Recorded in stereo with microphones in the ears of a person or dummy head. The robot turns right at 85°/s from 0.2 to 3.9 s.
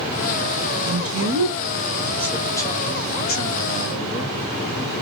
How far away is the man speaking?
About 1.3 m.